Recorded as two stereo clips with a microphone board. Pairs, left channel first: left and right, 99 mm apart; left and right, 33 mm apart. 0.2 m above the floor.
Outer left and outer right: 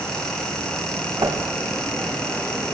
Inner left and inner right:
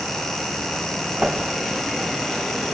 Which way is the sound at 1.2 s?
40° right (ahead or behind).